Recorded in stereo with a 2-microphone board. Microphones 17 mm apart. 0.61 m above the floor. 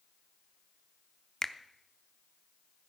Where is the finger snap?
25° left (ahead or behind), 0.7 m.